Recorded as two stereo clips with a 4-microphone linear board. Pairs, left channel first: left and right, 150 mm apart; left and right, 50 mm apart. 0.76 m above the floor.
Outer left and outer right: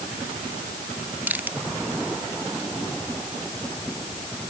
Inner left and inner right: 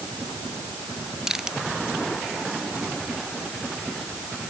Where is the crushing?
10° right (ahead or behind).